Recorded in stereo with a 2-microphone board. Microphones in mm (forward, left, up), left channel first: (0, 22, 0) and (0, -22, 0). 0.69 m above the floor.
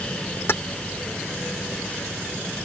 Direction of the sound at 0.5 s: 60° left (ahead or behind).